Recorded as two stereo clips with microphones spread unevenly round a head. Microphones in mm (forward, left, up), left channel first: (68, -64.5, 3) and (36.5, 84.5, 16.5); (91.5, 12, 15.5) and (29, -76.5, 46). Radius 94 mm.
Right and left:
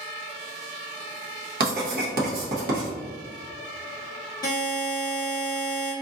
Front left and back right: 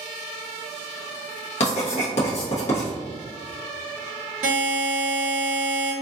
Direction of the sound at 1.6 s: 85° left.